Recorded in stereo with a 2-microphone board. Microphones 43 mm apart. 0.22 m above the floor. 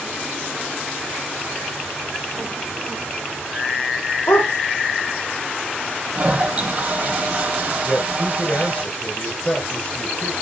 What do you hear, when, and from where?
4.3 s a dog barking: 85° left, 4 m
6.2 s a toilet flushing: 30° right (ahead or behind), 5 m
7.8 s a man speaking: 30° left (ahead or behind), 4 m